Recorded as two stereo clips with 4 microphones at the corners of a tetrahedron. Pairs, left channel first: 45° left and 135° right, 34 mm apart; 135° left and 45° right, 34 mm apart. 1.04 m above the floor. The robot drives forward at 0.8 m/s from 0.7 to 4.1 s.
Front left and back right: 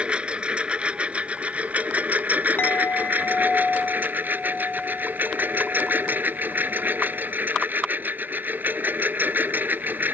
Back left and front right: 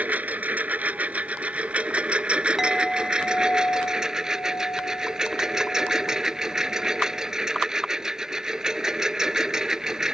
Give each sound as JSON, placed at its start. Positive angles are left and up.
{"t": 0.0, "sound": "a lawn mower", "azimuth_deg": -80}
{"t": 2.6, "sound": "a clink", "azimuth_deg": 35}